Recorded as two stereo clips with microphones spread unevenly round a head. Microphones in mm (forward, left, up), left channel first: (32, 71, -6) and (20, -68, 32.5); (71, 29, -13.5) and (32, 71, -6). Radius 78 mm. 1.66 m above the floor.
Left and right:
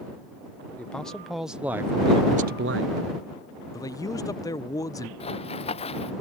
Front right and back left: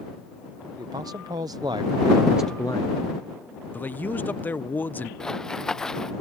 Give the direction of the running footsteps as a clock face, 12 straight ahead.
11 o'clock.